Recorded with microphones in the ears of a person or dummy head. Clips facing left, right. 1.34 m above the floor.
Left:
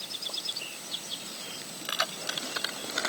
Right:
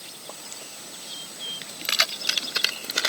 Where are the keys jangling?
30° right (ahead or behind); by 3.1 s 45° right (ahead or behind).